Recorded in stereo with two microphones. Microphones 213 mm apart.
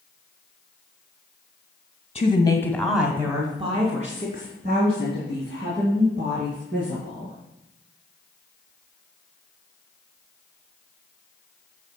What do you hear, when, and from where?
2.1 s a woman speaking: 30° left (ahead or behind), 1.5 m; by 7.3 s 55° right (ahead or behind), 5 m